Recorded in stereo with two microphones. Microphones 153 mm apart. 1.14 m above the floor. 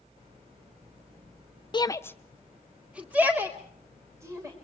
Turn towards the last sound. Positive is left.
turn(degrees=-20)  # may be behind; listen again after turning